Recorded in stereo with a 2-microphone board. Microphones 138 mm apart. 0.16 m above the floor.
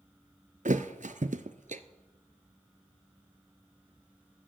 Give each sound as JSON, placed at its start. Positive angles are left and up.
{"t": 0.7, "sound": "a thud", "side_deg": -65, "distance_m": 0.8}